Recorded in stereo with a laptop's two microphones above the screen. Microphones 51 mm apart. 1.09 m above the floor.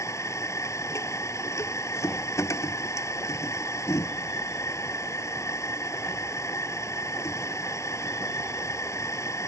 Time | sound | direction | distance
0.0 | a machine running | 75° left (ahead or behind) | ?